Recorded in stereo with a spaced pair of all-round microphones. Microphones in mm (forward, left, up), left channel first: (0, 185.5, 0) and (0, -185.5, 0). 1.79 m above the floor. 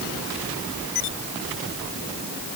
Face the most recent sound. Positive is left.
No sound to turn to.